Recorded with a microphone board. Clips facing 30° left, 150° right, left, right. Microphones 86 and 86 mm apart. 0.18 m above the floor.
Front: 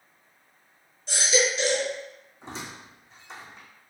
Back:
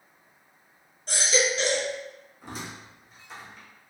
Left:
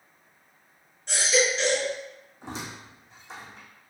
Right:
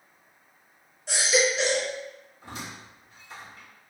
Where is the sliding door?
I don't hear a sliding door.